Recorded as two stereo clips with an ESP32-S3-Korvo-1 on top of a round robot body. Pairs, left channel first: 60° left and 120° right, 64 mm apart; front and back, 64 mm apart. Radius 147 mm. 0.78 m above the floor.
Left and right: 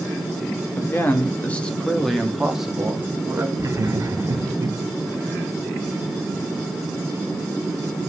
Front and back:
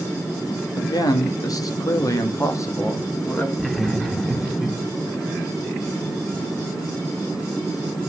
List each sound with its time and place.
0.8 s a man speaking: 10° left, 2 m; by 3.5 s 50° right, 2.5 m
3.6 s laughter: 85° right, 2 m